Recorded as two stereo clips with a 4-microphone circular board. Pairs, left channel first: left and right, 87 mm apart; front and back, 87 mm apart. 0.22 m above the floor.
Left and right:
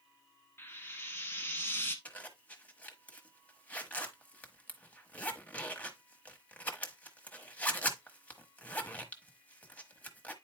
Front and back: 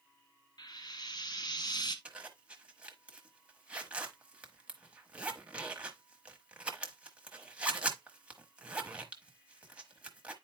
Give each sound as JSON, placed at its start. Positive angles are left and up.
{"t": 0.6, "sound": "frying", "azimuth_deg": 30, "distance_m": 1.2}
{"t": 2.0, "sound": "a zipper", "azimuth_deg": 130, "distance_m": 1.1}